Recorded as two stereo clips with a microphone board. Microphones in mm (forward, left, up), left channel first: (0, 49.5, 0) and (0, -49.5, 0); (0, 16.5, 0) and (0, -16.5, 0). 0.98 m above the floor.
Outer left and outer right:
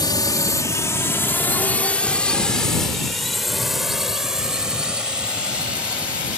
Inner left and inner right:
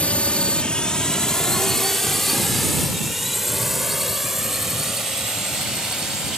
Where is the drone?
45° left (ahead or behind); by 6.4 s 15° right (ahead or behind).